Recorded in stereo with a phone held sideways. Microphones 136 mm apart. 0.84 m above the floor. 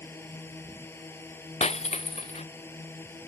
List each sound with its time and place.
0.0 s a drone: 20° left (ahead or behind)
1.6 s breaking glass: 55° left (ahead or behind)